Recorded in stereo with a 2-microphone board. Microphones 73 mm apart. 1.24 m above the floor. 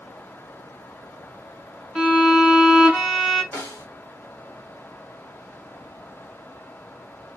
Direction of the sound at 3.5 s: 20° left (ahead or behind).